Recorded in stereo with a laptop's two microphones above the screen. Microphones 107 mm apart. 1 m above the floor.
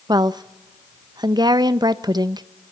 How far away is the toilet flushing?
I don't hear a toilet flushing.